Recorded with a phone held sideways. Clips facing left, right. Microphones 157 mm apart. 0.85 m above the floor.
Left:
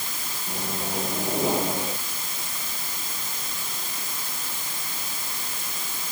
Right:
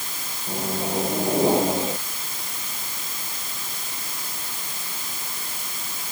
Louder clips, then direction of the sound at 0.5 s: Right 5 dB; 25° right (ahead or behind).